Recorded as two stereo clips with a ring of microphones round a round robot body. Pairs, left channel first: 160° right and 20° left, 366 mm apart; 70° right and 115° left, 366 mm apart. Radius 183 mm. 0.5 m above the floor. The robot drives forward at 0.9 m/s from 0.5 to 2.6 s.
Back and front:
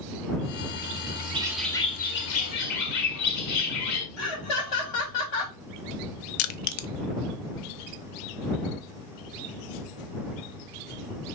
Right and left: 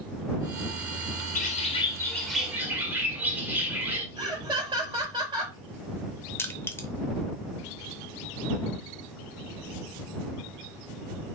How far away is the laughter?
About 3.5 m.